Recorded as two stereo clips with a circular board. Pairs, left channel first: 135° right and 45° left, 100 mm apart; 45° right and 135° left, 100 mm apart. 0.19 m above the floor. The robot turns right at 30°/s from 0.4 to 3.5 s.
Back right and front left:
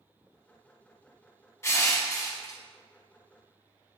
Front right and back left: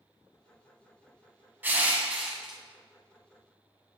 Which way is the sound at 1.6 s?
170° right.